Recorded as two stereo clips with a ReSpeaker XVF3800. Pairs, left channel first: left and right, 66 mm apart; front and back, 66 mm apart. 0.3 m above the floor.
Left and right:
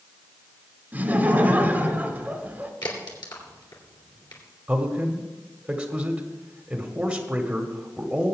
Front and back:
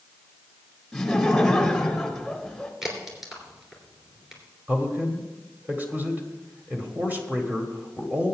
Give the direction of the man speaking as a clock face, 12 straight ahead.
5 o'clock.